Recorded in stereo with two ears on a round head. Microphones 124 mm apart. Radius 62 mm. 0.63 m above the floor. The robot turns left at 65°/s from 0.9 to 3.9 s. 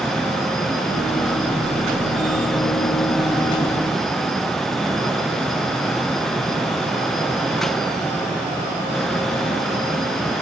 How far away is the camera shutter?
I don't hear a camera shutter.